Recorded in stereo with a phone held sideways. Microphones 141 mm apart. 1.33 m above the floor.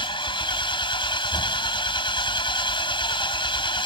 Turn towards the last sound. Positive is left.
turn(degrees=35)  # may be behind; listen again after turning